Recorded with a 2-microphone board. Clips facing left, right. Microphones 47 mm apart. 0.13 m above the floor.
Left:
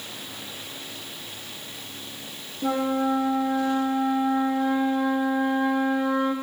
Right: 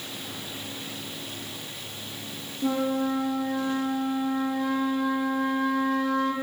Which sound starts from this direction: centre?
A flute, at 2.6 s.